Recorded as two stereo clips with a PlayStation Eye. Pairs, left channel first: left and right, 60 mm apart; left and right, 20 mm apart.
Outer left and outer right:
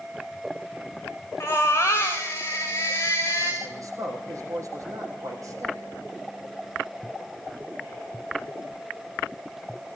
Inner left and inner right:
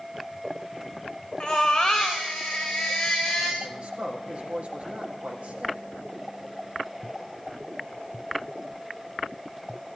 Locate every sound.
1.4 s a baby crying: 45° left (ahead or behind), 5.5 m
3.6 s a man speaking: 65° right (ahead or behind), 5.5 m